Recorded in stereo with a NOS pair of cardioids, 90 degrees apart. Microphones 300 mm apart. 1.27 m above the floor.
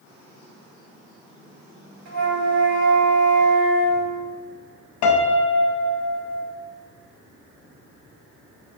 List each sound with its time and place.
2.0 s a flute: 65° right, 1.7 m
5.0 s a piano: 65° left, 0.5 m